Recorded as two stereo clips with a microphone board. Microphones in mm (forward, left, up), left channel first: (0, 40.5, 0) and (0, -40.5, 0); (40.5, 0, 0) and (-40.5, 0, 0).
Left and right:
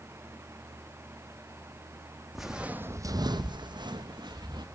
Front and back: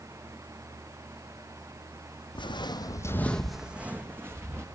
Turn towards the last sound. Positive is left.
turn(degrees=-120)